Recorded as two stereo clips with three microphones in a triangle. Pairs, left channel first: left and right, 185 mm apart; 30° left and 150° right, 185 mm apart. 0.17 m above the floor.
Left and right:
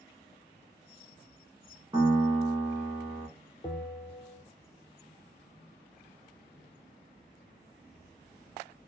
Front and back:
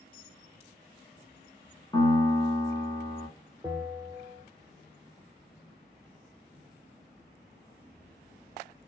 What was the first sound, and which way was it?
A piano, 35° right.